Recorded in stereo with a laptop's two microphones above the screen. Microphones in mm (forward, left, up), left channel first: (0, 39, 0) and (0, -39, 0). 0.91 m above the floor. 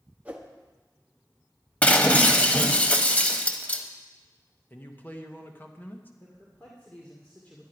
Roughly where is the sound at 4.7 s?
Left.